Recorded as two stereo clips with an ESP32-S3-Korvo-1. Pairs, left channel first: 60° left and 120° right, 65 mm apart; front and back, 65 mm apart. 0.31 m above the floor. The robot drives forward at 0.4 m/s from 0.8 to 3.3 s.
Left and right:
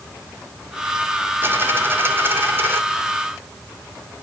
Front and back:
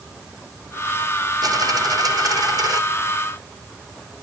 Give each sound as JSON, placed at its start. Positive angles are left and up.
{"t": 1.4, "sound": "a dropped coin", "azimuth_deg": -175, "distance_m": 1.8}